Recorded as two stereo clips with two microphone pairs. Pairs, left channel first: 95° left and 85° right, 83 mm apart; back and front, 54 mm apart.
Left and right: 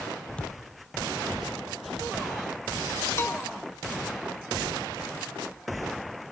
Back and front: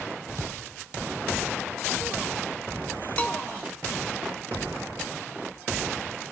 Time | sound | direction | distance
0.4 | a thud | 20° left | 1.5 m
3.2 | a bell | 135° left | 1.3 m